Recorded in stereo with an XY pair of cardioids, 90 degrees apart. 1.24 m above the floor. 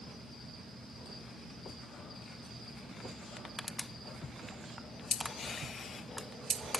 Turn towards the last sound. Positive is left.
turn(degrees=20)